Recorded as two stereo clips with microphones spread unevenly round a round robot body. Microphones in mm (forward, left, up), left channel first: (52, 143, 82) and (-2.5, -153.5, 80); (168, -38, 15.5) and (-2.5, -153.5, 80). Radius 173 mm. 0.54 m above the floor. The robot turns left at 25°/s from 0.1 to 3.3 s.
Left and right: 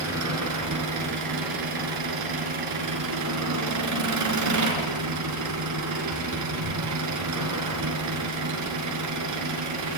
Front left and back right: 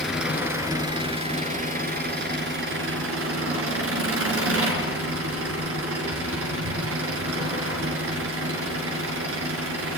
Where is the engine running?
55° right, 5 m; by 10.0 s 135° right, 5 m.